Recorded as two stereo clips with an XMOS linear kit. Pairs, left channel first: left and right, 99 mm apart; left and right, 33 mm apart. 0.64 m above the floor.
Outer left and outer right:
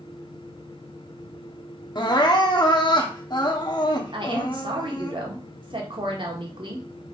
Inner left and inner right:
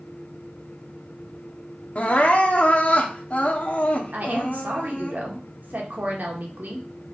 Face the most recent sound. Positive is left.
turn(degrees=-60)  # may be behind; listen again after turning